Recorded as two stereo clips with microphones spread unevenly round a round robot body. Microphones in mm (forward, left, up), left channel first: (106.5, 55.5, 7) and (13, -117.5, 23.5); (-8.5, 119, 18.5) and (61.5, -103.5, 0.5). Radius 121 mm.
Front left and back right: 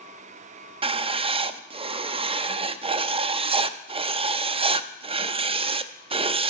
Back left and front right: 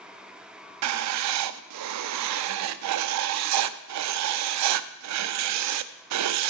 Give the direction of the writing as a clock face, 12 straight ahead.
2 o'clock.